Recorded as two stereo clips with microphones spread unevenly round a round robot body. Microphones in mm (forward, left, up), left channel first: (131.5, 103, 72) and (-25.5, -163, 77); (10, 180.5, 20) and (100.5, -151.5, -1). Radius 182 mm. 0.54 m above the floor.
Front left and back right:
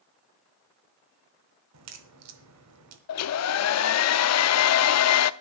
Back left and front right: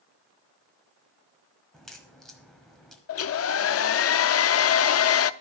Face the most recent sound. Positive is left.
turn(degrees=65)